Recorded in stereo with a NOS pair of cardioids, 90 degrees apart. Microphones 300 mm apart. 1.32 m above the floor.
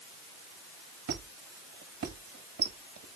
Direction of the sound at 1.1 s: 45° right.